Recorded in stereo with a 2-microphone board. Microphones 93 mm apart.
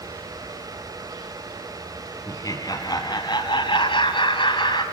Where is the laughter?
40° left (ahead or behind), 4 m; by 4.8 s 60° left (ahead or behind), 3 m.